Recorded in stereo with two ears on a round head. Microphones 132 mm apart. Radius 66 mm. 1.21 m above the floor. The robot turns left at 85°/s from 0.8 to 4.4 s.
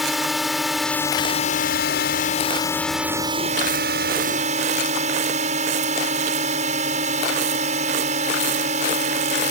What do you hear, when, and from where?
0.0 s a drone: straight behind; by 9.5 s 125° right